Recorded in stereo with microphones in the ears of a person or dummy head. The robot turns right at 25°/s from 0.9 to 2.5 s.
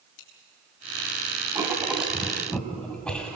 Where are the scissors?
75° left (ahead or behind), 4 m.